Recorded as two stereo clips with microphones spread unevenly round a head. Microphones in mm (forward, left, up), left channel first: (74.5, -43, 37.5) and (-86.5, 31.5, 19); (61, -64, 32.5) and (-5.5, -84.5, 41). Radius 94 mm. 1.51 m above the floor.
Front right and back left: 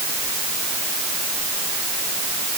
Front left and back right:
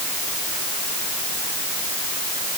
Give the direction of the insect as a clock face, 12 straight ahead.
I don't hear an insect.